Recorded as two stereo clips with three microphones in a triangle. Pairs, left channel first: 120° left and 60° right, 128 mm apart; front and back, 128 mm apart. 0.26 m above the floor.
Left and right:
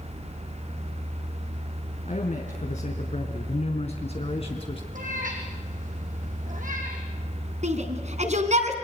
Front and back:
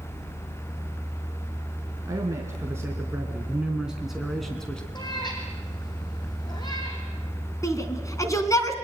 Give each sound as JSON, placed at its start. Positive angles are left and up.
{"t": 2.1, "sound": "a man speaking", "azimuth_deg": 120, "distance_m": 2.5}
{"t": 5.0, "sound": "a cat meowing", "azimuth_deg": -55, "distance_m": 3.5}
{"t": 7.6, "sound": "a shout", "azimuth_deg": -65, "distance_m": 2.5}